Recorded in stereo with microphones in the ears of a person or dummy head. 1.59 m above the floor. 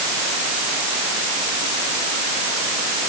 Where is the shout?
I don't hear a shout.